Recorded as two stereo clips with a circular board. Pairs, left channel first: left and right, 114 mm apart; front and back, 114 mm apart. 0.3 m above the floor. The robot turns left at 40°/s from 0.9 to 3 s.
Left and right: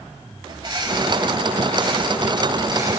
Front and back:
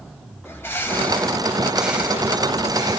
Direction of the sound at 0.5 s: 65° right.